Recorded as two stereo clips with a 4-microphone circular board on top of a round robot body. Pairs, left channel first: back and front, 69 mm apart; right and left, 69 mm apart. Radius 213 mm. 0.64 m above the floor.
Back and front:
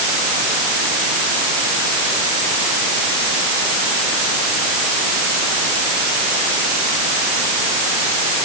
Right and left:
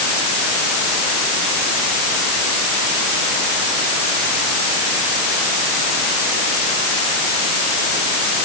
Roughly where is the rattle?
I don't hear a rattle.